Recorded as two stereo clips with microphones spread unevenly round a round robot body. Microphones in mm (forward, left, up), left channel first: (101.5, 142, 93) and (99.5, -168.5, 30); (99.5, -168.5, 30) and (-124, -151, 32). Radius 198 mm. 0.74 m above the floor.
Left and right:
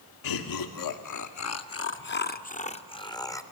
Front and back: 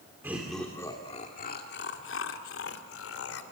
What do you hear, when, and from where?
0.2 s laughter: 95° left, 2 m; by 3.4 s 5° left, 3 m